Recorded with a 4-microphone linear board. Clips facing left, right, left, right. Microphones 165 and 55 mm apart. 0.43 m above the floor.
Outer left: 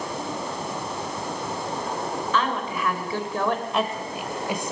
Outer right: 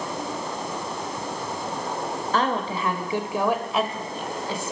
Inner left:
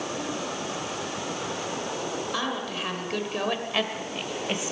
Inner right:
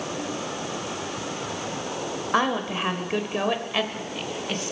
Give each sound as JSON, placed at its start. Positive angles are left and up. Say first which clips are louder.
{"t": 2.3, "sound": "a woman speaking", "louder": "outer right 3 dB, inner right 6 dB", "side_deg": -40, "distance_m": 1.6}